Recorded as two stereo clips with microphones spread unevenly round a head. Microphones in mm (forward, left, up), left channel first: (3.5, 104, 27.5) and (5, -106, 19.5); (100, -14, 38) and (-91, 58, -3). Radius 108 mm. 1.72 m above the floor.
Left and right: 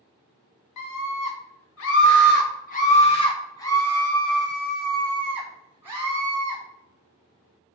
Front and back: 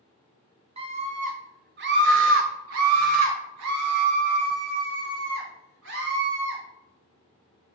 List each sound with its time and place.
0.8 s a scream: 95° left, 2 m; by 6.6 s 165° right, 4 m